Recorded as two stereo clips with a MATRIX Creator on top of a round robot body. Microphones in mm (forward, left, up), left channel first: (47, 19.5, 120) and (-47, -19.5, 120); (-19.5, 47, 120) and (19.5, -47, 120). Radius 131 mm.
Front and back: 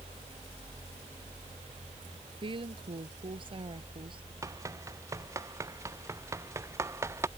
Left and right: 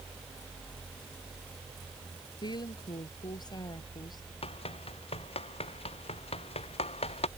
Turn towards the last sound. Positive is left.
turn(degrees=135)